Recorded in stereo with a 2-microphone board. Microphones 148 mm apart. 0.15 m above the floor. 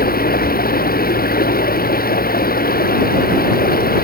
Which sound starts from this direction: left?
Running water, at 0.0 s.